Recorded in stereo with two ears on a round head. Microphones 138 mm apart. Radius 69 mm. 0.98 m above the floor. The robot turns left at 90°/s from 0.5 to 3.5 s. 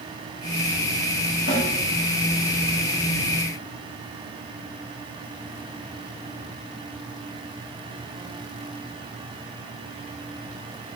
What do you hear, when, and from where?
1.5 s a snare drum: 75° left (ahead or behind), 6.5 m; by 1.7 s 80° left, 6.5 m